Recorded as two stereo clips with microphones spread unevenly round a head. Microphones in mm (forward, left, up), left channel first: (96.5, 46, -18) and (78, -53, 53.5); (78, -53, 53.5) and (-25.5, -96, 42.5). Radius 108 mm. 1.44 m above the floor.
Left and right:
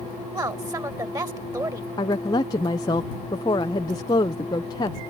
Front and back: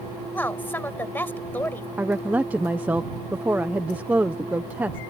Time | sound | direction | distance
0.3 | a woman speaking | 50° right | ?
2.0 | a woman speaking | 125° left | ?